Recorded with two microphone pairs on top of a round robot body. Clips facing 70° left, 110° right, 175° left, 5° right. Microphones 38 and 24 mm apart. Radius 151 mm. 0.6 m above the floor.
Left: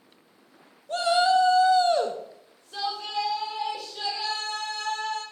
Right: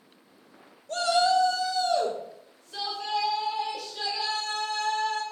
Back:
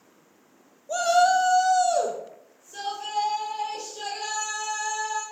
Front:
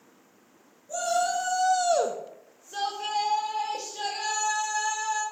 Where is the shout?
150° left, 1.5 m; by 5.2 s 15° right, 4.5 m.